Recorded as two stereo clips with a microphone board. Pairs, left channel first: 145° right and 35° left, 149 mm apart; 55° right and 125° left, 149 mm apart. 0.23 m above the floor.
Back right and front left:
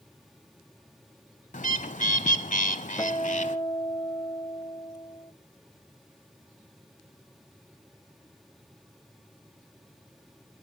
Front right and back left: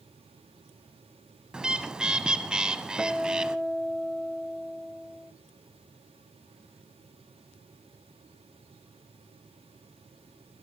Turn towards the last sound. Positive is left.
turn(degrees=-155)